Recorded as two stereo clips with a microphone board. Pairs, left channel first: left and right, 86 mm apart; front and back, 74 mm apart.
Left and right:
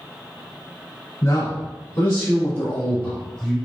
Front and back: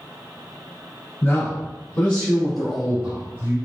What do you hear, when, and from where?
1.2 s a man speaking: 45° left, 2 m; by 3.6 s 175° left, 1.5 m